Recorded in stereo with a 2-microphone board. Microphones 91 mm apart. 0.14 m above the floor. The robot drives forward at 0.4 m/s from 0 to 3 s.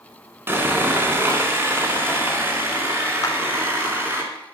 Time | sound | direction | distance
0.5 | sawing | 25° right (ahead or behind) | 1.4 m
3.2 | a clap | 35° left (ahead or behind) | 1.1 m